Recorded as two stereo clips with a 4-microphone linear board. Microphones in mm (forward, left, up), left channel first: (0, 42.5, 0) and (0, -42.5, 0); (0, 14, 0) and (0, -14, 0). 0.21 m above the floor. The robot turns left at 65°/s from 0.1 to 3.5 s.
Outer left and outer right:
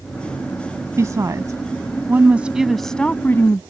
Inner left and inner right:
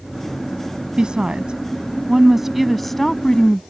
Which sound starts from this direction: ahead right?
A woman speaking, at 1.0 s.